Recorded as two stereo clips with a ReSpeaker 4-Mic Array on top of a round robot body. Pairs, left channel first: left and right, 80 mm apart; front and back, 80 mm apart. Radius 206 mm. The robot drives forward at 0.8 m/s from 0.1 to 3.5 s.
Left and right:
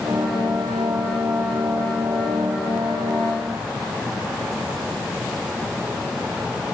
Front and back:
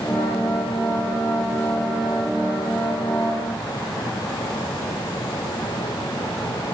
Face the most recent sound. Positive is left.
No sound to turn to.